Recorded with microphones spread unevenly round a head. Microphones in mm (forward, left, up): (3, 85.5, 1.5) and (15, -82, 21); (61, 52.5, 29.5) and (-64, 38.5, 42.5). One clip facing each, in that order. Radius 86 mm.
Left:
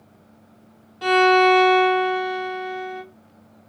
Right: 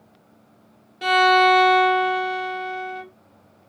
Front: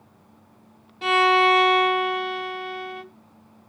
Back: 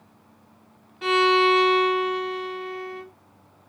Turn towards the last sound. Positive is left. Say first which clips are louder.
# left 2 dB, front 1 dB
turn(degrees=-55)